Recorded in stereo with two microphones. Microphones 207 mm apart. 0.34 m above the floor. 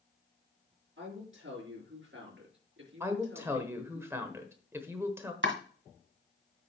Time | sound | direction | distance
1.0 | a woman speaking | 70° right (ahead or behind) | 5 m
3.0 | a woman speaking | 10° right (ahead or behind) | 1.2 m
5.4 | chopping | 65° right (ahead or behind) | 1.7 m